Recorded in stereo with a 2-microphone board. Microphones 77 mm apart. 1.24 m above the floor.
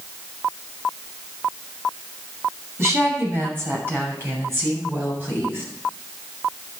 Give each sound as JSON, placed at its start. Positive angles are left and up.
{"t": 2.8, "sound": "a woman speaking", "side_deg": -35, "distance_m": 6.0}